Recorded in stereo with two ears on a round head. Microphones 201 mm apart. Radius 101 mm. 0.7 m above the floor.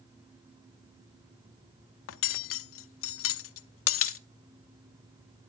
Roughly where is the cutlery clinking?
Left.